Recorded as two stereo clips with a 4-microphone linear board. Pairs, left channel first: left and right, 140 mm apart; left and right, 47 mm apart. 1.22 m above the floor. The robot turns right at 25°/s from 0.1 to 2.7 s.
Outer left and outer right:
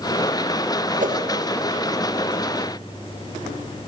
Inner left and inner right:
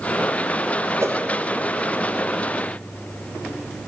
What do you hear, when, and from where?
1.0 s a whoosh: 70° right (ahead or behind), 1.4 m